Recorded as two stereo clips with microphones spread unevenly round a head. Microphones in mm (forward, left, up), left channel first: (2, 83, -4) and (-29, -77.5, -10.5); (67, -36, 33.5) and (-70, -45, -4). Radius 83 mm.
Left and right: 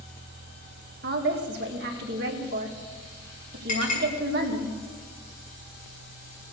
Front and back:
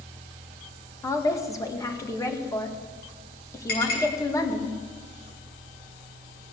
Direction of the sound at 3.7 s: 25° left.